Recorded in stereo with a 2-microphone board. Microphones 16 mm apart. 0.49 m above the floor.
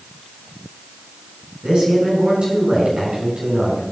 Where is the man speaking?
55° right (ahead or behind), 7 m.